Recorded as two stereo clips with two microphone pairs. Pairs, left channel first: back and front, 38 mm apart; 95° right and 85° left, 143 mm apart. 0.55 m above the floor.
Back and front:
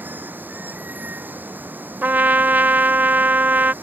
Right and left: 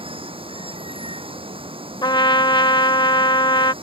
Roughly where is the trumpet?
Ahead right.